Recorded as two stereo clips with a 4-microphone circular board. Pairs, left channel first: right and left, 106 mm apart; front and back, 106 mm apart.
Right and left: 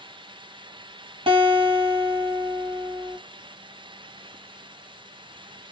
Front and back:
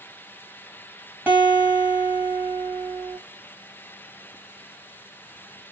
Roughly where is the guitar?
Left.